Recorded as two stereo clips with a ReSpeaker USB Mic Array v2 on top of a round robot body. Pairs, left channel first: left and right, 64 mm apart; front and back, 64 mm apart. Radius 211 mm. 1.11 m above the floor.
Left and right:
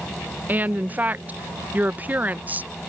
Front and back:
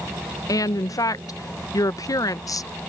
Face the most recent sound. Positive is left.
turn(degrees=-25)